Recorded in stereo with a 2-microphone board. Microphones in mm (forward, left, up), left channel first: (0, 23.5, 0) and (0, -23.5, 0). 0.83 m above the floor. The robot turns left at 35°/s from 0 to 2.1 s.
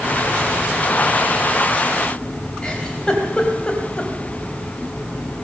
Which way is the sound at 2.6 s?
20° left (ahead or behind).